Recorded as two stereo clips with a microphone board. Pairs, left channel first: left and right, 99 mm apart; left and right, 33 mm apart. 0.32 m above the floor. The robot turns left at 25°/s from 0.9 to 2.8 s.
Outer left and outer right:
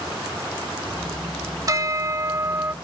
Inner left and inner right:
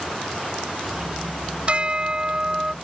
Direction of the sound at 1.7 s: 40° right (ahead or behind).